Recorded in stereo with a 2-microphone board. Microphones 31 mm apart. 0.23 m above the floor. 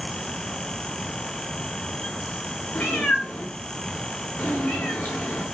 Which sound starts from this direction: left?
A cat meowing, at 2.8 s.